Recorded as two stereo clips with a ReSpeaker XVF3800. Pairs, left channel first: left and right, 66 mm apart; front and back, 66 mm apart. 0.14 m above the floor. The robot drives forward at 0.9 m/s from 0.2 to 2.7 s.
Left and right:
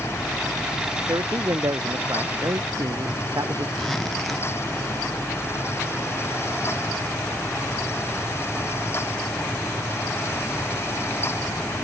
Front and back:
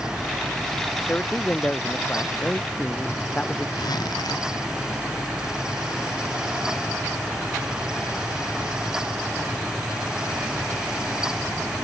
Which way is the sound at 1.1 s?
65° right.